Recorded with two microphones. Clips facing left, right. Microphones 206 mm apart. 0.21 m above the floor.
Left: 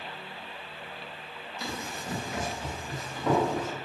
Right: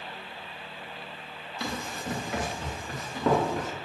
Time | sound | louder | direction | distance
1.6 | running footsteps | right 3 dB | 65° right (ahead or behind) | 1.8 m